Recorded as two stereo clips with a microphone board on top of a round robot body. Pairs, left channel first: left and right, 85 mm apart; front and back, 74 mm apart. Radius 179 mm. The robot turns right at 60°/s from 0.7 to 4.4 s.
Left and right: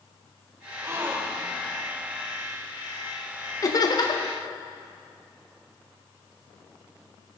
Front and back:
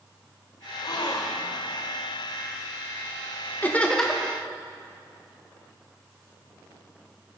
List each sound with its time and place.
0.8 s a gasp: 35° right, 1.5 m; by 1.6 s 15° left, 1.5 m
3.6 s laughter: 60° left, 1.5 m; by 4.4 s 100° left, 1.5 m